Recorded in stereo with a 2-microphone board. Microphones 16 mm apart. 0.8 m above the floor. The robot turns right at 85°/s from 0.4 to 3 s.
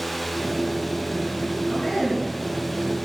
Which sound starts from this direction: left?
A man speaking, at 1.6 s.